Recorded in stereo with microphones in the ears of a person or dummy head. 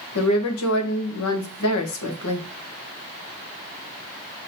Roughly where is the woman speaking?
Left.